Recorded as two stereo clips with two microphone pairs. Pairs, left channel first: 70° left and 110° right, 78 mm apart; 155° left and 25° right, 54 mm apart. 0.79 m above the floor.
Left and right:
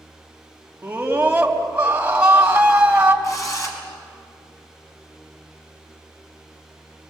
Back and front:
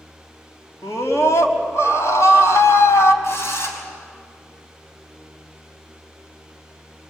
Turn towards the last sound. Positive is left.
turn(degrees=120)